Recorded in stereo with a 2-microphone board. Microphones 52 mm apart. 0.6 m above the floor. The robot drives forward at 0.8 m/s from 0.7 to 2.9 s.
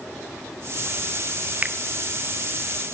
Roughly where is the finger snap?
Right.